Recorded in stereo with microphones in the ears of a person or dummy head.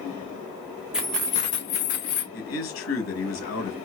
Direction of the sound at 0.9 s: 5° right (ahead or behind).